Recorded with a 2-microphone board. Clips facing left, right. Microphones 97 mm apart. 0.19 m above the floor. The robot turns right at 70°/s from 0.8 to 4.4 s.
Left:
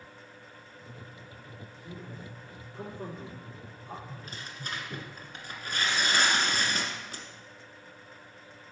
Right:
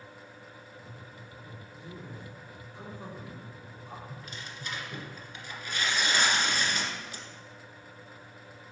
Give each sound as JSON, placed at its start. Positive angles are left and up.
{"t": 1.8, "sound": "a man speaking", "side_deg": -25, "distance_m": 4.0}
{"t": 4.1, "sound": "tearing paper", "side_deg": 25, "distance_m": 1.5}